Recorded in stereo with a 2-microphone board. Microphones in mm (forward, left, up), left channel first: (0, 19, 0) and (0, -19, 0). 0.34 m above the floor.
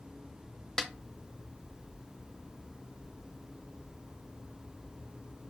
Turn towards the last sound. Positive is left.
turn(degrees=15)  # may be behind; listen again after turning